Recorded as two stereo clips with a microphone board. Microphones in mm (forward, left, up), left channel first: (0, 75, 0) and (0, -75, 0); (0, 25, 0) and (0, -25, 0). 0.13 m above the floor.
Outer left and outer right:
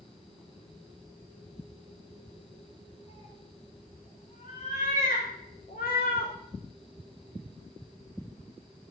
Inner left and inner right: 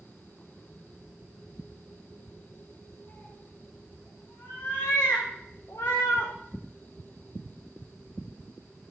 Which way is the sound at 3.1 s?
45° left (ahead or behind).